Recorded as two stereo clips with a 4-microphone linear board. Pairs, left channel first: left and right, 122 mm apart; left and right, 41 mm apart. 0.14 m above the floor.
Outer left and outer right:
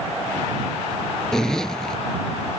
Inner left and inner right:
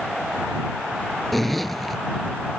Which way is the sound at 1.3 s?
5° left (ahead or behind).